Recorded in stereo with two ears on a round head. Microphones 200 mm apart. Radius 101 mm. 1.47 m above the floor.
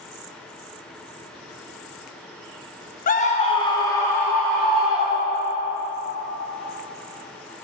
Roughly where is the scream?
Left.